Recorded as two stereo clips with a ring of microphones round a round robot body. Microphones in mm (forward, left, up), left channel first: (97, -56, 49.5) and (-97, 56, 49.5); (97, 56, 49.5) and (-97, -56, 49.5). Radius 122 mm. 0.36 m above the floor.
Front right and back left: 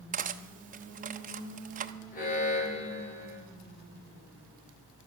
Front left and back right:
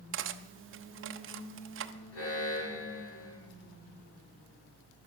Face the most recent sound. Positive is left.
turn(degrees=25)